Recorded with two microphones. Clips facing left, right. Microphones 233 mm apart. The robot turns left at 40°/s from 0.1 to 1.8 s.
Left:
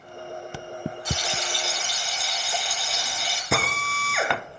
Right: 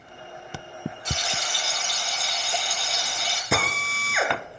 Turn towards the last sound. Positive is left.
turn(degrees=-5)  # may be behind; listen again after turning